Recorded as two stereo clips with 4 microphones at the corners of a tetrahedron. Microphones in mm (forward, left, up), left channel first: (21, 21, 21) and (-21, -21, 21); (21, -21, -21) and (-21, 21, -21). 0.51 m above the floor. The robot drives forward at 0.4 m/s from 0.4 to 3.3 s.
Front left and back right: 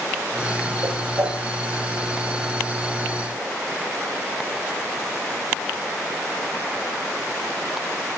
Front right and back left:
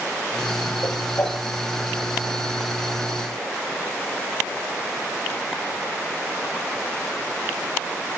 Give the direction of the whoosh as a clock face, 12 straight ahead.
3 o'clock.